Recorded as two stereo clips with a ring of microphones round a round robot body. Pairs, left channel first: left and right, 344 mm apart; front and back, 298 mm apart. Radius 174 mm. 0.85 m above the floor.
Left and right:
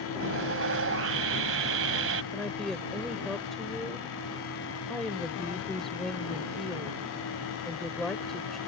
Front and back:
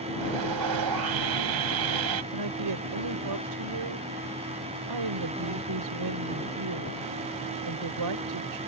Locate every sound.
0.2 s sawing: 145° right
2.3 s a woman speaking: straight behind